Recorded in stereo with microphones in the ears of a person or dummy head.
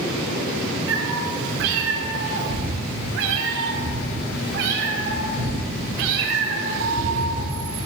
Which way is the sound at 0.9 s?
60° right (ahead or behind).